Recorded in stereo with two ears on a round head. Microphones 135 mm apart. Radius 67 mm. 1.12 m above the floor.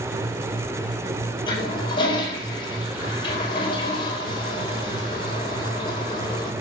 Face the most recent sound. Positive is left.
turn(degrees=30)  # may be behind; listen again after turning